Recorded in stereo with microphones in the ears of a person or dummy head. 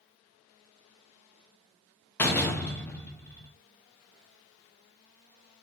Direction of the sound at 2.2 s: 5° left (ahead or behind).